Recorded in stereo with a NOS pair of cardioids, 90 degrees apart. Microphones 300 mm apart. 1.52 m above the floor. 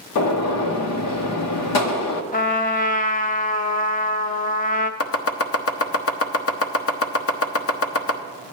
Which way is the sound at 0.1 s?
65° left.